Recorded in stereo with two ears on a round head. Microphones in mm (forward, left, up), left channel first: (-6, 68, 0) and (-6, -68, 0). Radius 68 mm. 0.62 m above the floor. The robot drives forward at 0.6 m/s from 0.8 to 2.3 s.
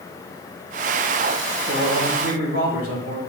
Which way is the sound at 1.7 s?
70° right (ahead or behind).